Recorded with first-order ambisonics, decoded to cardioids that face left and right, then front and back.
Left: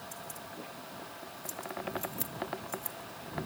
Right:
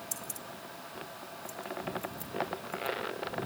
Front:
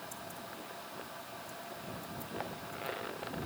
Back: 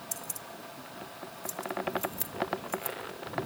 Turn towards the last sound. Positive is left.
turn(degrees=140)